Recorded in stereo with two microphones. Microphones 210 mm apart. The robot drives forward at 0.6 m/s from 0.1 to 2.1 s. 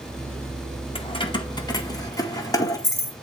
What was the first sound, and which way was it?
Keys jangling, 25° left (ahead or behind).